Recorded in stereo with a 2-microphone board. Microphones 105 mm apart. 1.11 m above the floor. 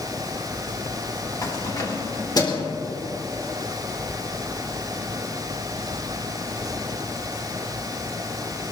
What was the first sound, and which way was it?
Keys jangling, 40° left (ahead or behind).